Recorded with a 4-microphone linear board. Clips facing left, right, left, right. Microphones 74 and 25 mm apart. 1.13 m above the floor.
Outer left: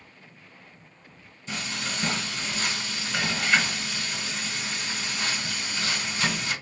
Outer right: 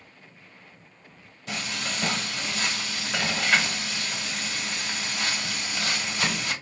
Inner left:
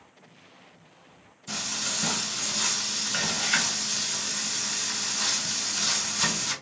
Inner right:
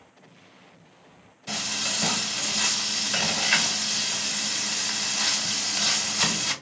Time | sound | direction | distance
1.5 | frying | 65° right (ahead or behind) | 1.6 m